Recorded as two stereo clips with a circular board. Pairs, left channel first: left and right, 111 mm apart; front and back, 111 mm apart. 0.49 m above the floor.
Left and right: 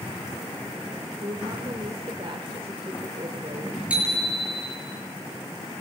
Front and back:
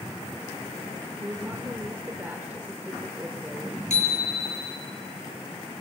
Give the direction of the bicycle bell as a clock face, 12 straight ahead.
12 o'clock.